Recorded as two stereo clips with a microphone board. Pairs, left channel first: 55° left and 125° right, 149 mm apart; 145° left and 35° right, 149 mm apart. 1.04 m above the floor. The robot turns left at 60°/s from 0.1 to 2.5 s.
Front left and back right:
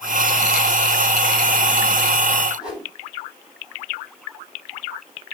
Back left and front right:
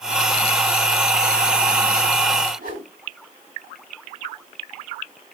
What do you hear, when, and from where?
2.6 s a whoosh: 40° right, 7.5 m